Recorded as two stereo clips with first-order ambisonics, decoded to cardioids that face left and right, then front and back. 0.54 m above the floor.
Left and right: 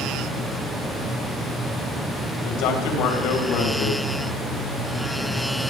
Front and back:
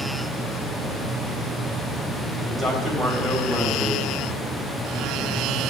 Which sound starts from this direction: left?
A man speaking, at 2.4 s.